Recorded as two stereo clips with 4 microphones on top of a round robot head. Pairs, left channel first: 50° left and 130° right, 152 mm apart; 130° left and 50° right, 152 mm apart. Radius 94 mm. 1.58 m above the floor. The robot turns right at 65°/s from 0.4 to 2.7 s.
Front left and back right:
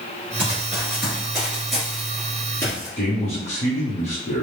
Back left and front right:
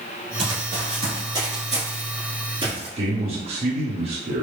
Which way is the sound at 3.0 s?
Straight ahead.